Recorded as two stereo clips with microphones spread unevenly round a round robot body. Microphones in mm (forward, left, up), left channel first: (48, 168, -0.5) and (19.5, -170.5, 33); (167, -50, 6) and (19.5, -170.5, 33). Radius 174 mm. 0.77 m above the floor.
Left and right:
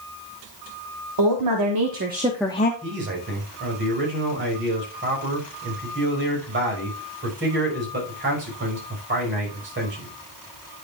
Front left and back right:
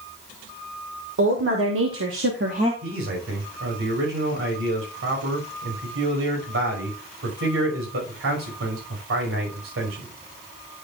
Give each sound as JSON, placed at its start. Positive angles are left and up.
{"t": 1.2, "sound": "a woman speaking", "azimuth_deg": -130, "distance_m": 2.0}
{"t": 2.8, "sound": "a man speaking", "azimuth_deg": -155, "distance_m": 5.0}